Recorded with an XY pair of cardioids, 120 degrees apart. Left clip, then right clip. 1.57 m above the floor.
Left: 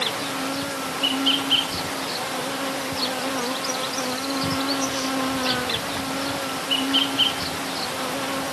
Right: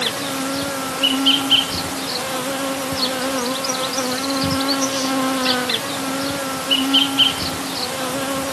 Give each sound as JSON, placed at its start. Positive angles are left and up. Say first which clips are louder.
{"t": 0.0, "sound": "an insect", "louder": "right 3 dB", "azimuth_deg": -35}